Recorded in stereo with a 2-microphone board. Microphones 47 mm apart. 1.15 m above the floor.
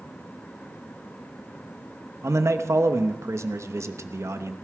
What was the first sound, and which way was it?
A man speaking, 85° right.